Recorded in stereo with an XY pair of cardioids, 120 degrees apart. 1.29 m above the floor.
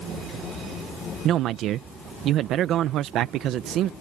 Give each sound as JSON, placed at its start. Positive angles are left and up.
{"t": 1.2, "sound": "a man speaking", "azimuth_deg": -70}